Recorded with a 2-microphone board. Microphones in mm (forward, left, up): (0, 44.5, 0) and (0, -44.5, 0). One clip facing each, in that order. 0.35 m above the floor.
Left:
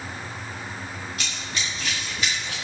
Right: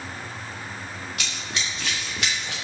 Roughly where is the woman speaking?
I don't hear a woman speaking.